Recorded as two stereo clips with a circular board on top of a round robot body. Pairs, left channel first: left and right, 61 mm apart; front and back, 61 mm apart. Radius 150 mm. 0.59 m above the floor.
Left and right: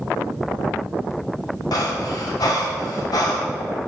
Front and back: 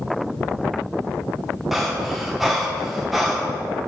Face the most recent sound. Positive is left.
turn(degrees=95)